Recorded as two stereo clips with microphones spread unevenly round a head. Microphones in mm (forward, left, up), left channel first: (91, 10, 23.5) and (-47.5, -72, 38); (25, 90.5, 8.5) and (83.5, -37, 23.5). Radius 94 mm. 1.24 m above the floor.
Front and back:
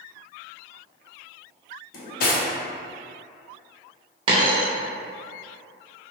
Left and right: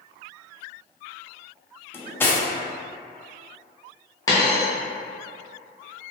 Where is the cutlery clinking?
40° left, 0.5 m.